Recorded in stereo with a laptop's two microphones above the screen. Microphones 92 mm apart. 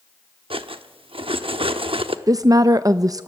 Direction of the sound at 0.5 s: 80° right.